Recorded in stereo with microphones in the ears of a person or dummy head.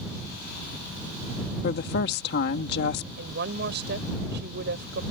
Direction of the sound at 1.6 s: 60° left (ahead or behind).